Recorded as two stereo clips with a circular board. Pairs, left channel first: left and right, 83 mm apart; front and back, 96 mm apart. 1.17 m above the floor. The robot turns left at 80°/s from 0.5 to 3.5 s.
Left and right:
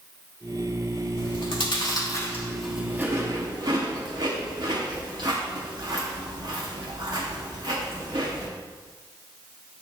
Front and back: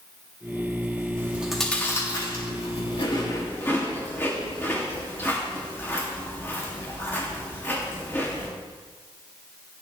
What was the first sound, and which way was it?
Chewing, 120° left.